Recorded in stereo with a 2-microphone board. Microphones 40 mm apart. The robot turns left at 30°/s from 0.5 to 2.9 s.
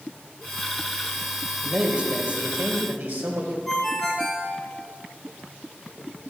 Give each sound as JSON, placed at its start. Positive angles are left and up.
{"t": 1.6, "sound": "a man speaking", "azimuth_deg": -25, "distance_m": 3.0}
{"t": 3.7, "sound": "a ringtone", "side_deg": 5, "distance_m": 3.0}